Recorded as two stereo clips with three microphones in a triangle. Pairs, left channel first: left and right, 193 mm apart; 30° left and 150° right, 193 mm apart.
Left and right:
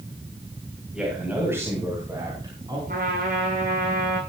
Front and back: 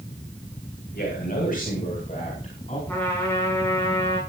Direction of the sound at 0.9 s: 5° right.